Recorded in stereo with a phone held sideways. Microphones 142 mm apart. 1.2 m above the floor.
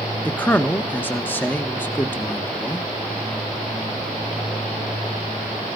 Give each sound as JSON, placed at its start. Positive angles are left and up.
{"t": 0.2, "sound": "a man speaking", "side_deg": 15, "distance_m": 1.4}